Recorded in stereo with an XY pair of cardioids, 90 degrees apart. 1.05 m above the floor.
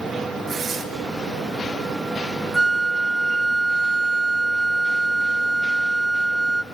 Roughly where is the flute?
Ahead.